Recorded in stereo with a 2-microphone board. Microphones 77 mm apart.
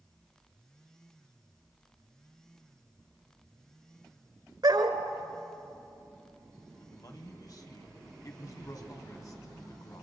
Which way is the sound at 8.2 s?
45° left (ahead or behind).